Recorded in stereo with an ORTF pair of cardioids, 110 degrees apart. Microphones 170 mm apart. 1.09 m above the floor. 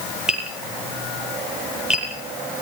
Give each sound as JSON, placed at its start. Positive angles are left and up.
{"t": 0.3, "sound": "tapping", "azimuth_deg": -5, "distance_m": 6.5}